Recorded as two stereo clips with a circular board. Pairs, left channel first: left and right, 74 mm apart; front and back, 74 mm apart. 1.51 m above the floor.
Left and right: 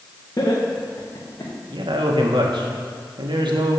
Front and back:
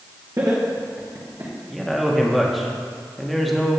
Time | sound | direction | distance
0.4 | laughter | 135° left | 1.6 m
1.7 | a man speaking | 90° right | 1.6 m